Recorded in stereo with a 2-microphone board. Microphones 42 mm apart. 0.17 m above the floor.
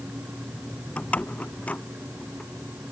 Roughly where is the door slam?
Left.